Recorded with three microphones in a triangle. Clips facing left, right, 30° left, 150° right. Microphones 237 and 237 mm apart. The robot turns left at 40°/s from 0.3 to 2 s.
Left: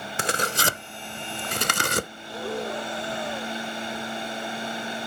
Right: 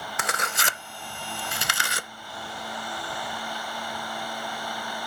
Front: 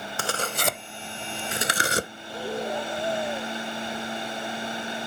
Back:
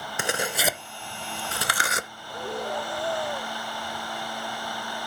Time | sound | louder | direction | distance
0.2 | tearing paper | left 6 dB, back 2 dB | 140° left | ?
2.2 | breathing | left 9 dB, front 2 dB | 110° left | ?